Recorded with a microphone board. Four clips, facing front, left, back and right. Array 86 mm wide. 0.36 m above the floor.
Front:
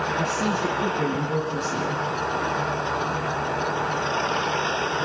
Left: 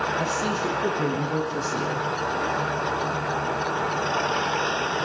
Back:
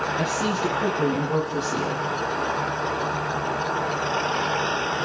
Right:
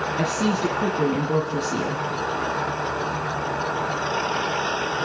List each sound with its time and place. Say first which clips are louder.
0.2 s a woman speaking: right 3 dB, even; 90° right, 4.5 m